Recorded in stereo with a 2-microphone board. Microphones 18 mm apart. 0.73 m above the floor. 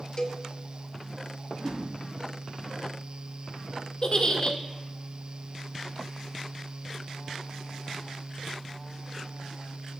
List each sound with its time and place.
0.2 s a cowbell: 30° left (ahead or behind), 0.7 m
1.5 s a whoosh: 30° right (ahead or behind), 3.5 m
4.0 s a giggle: 45° left (ahead or behind), 1.0 m